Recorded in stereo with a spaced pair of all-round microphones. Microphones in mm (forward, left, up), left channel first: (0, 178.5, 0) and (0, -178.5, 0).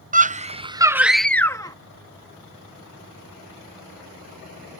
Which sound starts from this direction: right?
A scream, at 0.1 s.